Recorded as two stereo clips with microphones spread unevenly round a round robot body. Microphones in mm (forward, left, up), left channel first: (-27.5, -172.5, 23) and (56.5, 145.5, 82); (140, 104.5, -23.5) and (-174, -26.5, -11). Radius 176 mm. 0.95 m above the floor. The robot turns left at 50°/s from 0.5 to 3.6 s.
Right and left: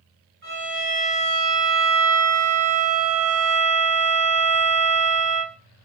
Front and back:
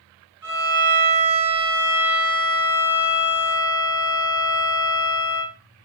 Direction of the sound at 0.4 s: 170° left.